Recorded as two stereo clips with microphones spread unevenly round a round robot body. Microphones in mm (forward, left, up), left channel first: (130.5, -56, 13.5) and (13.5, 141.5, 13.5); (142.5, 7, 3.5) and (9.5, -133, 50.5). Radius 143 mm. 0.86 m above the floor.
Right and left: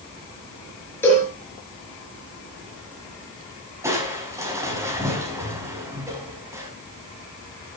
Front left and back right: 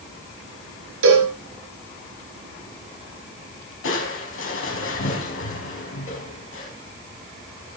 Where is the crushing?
45° left, 5 m.